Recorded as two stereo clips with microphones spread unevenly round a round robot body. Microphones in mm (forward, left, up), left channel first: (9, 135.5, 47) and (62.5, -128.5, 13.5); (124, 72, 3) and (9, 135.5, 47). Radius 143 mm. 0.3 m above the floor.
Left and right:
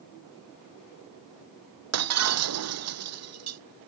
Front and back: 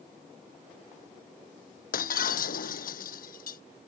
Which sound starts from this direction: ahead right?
Breaking glass, at 1.9 s.